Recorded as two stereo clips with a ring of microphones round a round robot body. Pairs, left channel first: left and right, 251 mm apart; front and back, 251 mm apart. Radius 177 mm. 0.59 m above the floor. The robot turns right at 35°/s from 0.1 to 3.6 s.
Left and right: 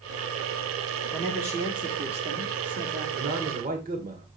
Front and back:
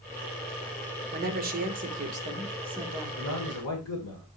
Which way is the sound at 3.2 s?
50° right.